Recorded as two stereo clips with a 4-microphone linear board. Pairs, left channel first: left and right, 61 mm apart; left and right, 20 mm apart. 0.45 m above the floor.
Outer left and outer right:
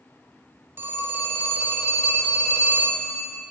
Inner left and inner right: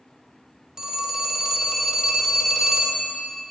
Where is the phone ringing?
40° right (ahead or behind), 0.8 m.